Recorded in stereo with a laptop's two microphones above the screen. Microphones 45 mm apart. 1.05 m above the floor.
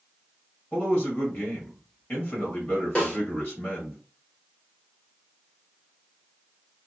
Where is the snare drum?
20° left (ahead or behind), 1.2 m.